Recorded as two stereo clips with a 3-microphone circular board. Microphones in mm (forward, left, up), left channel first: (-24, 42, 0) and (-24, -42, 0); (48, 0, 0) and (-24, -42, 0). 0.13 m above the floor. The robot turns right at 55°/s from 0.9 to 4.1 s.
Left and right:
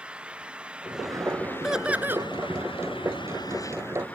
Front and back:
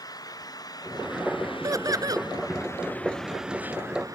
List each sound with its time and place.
0.0 s an engine running: 10° right; by 4.2 s 165° left
1.6 s laughter: 175° right; by 2.3 s 140° right